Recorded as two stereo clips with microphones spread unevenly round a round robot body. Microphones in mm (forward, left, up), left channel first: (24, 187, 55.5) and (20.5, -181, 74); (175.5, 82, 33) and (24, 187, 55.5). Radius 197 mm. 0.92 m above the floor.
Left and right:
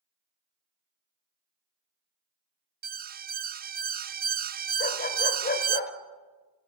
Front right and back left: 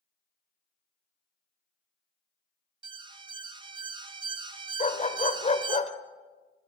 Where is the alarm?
150° right, 0.7 m.